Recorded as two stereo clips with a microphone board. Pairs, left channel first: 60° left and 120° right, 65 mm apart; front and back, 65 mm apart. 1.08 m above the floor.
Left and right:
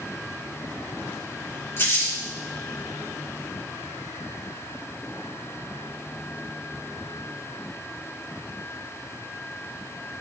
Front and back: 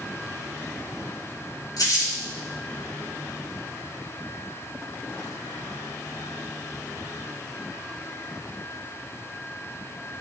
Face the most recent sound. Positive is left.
turn(degrees=10)